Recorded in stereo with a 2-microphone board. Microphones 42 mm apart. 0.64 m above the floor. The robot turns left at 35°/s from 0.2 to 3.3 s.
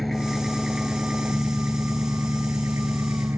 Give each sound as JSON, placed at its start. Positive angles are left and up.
{"t": 0.0, "sound": "an engine running", "azimuth_deg": 5}